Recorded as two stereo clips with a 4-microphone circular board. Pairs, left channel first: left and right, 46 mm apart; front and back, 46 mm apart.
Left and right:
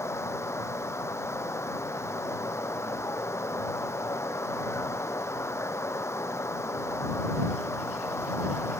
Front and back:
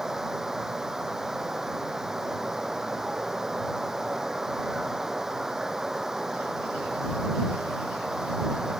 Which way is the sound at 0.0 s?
100° left.